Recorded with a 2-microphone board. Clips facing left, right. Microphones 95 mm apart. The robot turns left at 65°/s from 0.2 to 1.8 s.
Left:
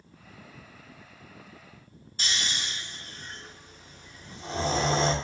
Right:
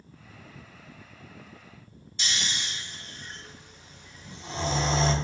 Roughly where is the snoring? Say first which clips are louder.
Even; left.